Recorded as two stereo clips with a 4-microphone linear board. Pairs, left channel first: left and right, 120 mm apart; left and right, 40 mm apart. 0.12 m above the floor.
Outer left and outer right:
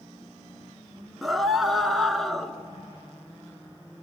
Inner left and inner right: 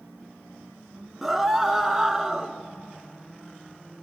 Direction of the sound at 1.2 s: Centre (ahead or behind).